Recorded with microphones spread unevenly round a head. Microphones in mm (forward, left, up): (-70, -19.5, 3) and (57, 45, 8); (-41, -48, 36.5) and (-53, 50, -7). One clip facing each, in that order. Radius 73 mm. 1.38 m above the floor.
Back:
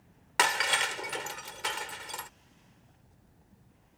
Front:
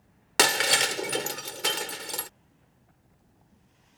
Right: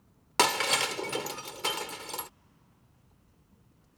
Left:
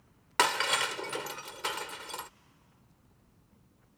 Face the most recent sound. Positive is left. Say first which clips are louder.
# front 4 dB, right 2 dB
turn(degrees=-20)